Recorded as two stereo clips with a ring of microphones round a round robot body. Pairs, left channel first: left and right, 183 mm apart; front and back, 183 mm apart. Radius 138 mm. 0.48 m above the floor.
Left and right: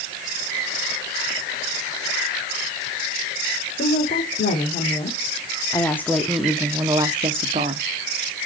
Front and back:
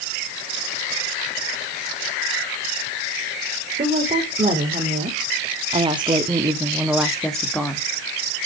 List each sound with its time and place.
3.8 s a woman speaking: 135° left, 2 m; by 7.8 s 75° right, 1.3 m